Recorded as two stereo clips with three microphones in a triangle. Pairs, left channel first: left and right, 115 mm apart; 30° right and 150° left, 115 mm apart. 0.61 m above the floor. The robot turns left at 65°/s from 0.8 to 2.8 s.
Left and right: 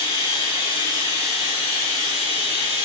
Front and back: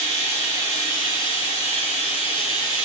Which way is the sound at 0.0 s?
35° left.